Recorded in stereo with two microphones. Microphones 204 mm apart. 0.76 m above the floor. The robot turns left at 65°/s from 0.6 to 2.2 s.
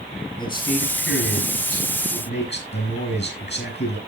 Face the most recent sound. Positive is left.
turn(degrees=55)